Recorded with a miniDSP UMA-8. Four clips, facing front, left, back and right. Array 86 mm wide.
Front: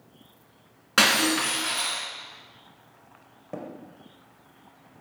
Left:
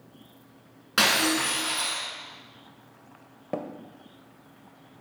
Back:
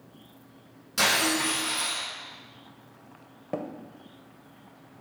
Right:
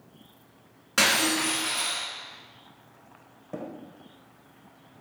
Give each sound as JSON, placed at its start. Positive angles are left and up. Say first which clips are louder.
{"t": 1.0, "sound": "breaking glass", "louder": "left 1 dB, front 3 dB", "azimuth_deg": 15, "distance_m": 2.0}
{"t": 3.5, "sound": "tapping", "louder": "left 5 dB, back 4 dB", "azimuth_deg": 120, "distance_m": 0.7}